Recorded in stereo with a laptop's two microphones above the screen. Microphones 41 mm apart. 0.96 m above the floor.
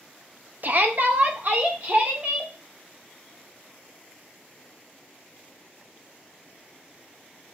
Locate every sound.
0.6 s a shout: 45° right (ahead or behind), 0.6 m